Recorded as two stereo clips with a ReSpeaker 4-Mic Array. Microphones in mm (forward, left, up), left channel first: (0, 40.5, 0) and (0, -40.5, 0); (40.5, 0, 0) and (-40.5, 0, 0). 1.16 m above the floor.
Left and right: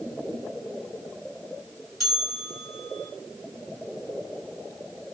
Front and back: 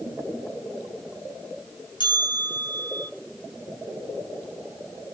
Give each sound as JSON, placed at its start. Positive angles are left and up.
{"t": 2.0, "sound": "a bell", "azimuth_deg": 0, "distance_m": 6.0}